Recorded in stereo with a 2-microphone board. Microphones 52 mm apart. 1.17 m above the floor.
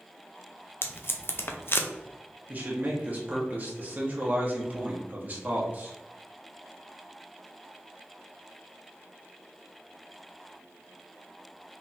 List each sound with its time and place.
0.8 s tape being pulled: 50° left (ahead or behind), 0.5 m
2.5 s a man speaking: 35° right (ahead or behind), 1.4 m